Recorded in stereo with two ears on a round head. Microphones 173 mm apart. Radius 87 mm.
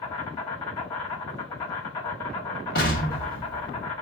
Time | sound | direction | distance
0.0 | an insect | 25° left (ahead or behind) | 1.4 m
2.8 | an explosion | 50° left (ahead or behind) | 1.4 m